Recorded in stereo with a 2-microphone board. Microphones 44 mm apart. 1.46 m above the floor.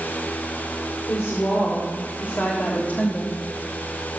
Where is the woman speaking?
60° left (ahead or behind), 4 m; by 3.4 s 40° left (ahead or behind), 2 m.